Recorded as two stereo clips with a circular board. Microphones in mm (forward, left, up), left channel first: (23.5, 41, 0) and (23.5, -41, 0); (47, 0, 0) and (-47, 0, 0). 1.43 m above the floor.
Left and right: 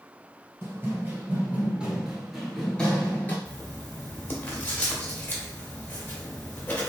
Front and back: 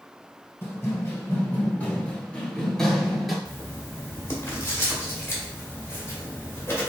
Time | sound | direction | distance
0.6 | running footsteps | 50° right | 1.8 m
3.5 | writing | 40° left | 1.4 m